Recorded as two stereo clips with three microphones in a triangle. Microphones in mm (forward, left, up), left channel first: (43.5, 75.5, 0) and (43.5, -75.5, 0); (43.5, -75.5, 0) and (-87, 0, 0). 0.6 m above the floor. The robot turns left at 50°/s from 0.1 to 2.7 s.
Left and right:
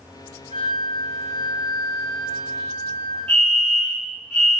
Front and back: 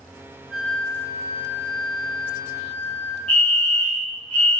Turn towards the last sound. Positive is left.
turn(degrees=25)